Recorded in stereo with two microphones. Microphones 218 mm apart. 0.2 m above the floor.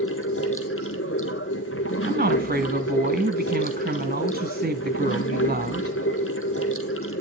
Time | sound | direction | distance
0.0 | running water | 80° left | 1.4 m
2.0 | a woman speaking | 45° right (ahead or behind) | 1.5 m